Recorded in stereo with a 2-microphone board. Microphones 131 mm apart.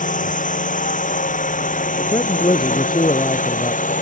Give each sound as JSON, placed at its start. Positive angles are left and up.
{"t": 0.0, "sound": "a drone", "side_deg": 80}
{"t": 2.0, "sound": "a man speaking", "side_deg": 35}